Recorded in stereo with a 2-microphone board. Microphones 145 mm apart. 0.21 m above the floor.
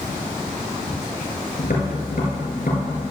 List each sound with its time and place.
1.6 s tapping: 70° left (ahead or behind), 3 m